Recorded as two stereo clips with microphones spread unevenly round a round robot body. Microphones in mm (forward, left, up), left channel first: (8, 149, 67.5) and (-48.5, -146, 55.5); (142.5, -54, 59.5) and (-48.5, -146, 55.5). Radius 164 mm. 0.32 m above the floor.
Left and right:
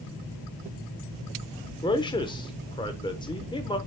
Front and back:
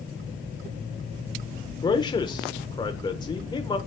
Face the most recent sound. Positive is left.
turn(degrees=30)